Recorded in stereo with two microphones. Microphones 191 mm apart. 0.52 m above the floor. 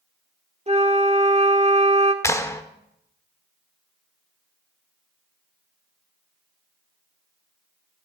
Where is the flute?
35° right (ahead or behind), 1.2 m.